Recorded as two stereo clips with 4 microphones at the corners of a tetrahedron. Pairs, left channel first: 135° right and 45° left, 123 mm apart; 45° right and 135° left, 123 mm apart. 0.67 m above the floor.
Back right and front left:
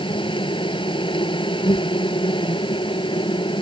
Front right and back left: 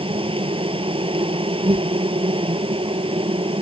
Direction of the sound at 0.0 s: Straight behind.